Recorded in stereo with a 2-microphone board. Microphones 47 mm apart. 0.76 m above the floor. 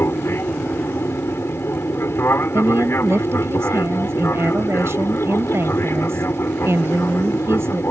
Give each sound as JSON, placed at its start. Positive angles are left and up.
{"t": 0.0, "sound": "an aircraft", "side_deg": 55}
{"t": 2.5, "sound": "a woman speaking", "side_deg": -65}